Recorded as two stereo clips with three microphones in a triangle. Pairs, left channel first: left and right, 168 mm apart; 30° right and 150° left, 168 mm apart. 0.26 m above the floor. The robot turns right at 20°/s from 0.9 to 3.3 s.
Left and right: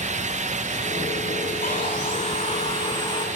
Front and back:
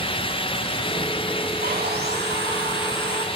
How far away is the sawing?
About 6.5 m.